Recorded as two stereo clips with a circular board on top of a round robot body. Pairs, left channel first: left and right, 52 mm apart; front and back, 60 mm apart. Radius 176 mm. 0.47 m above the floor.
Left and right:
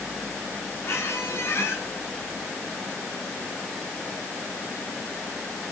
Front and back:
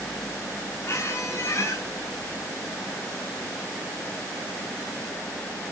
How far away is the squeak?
About 6 m.